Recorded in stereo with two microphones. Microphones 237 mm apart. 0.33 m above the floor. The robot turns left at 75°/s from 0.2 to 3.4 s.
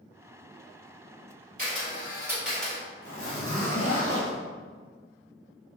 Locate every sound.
1.6 s a camera shutter: 35° right (ahead or behind), 1.8 m; by 2.8 s 10° left (ahead or behind), 1.8 m
3.0 s a zipper: 50° left (ahead or behind), 1.5 m; by 4.4 s 80° left, 1.5 m